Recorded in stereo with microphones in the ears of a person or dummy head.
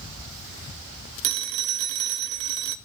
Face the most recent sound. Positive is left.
turn(degrees=-60)  # may be behind; listen again after turning